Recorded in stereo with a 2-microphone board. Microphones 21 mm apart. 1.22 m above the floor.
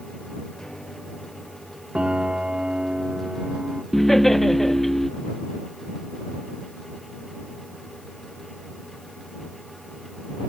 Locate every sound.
0.6 s a piano: 35° left (ahead or behind)
1.9 s a piano: 45° right (ahead or behind)
3.9 s laughter: 15° left (ahead or behind)